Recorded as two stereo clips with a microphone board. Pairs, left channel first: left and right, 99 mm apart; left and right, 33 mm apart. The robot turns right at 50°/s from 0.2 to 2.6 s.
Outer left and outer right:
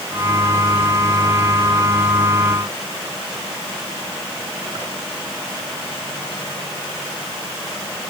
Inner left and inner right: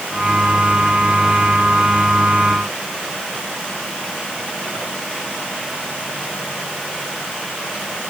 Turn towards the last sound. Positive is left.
No sound to turn to.